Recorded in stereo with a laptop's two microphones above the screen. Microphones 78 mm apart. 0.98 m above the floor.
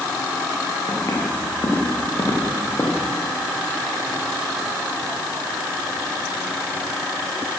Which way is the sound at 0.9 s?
40° left (ahead or behind).